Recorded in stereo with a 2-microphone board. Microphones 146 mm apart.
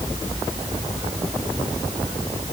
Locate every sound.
Only background noise.